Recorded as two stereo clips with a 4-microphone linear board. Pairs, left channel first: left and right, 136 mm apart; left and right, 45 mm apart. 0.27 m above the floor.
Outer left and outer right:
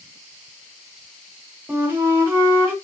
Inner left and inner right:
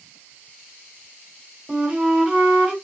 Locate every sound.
1.7 s a flute: 15° right (ahead or behind), 1.5 m